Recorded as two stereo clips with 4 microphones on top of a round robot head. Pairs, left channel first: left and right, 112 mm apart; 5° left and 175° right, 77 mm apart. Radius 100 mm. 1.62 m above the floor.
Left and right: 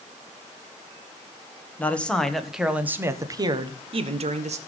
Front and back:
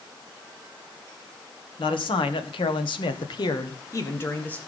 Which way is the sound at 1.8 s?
15° left.